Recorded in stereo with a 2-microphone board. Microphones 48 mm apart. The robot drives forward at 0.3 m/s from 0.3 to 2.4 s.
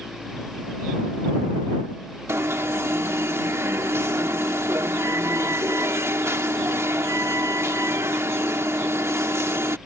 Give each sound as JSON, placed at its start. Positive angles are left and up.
{"t": 2.3, "sound": "an alarm", "side_deg": -70}